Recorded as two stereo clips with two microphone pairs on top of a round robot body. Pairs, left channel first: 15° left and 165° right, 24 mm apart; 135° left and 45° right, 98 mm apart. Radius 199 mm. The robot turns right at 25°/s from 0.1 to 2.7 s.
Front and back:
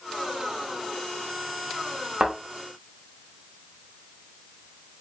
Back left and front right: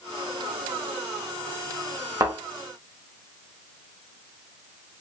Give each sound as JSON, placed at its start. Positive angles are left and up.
{"t": 2.2, "sound": "a thud", "azimuth_deg": -105, "distance_m": 0.8}